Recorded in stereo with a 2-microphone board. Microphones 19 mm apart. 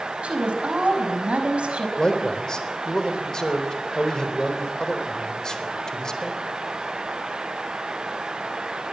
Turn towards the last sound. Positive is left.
turn(degrees=35)  # may be behind; listen again after turning